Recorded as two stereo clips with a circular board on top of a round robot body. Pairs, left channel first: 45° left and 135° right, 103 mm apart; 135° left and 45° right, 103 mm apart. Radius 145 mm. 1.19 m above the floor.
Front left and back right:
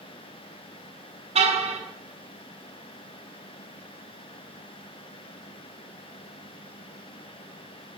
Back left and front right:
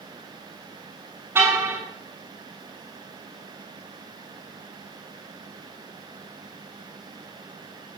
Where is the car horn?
115° right, 6.5 m.